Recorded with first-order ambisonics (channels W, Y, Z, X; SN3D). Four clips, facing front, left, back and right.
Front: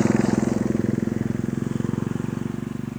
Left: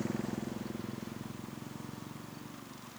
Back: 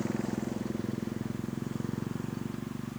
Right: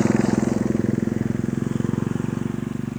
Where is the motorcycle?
50° right; by 3.0 s 65° right.